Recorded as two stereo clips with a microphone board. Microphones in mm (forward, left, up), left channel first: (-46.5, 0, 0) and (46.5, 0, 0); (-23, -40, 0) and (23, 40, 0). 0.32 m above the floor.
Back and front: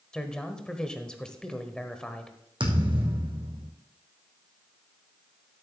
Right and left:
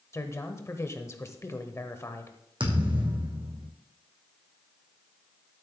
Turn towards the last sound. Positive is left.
turn(degrees=30)